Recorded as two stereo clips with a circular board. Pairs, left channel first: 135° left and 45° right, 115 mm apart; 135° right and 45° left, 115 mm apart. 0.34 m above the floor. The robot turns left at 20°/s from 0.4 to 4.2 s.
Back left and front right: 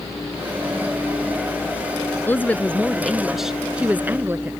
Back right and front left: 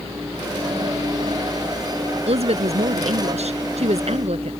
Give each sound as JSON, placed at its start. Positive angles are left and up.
{"t": 2.3, "sound": "a woman speaking", "azimuth_deg": 65}